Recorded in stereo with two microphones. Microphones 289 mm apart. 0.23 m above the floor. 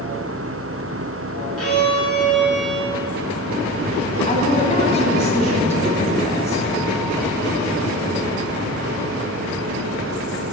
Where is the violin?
55° left (ahead or behind), 2 m.